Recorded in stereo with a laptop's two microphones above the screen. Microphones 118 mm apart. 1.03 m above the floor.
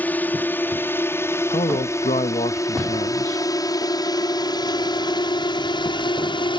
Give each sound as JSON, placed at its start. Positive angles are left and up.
{"t": 0.0, "sound": "a drone", "side_deg": 15}
{"t": 1.5, "sound": "a man speaking", "side_deg": 70}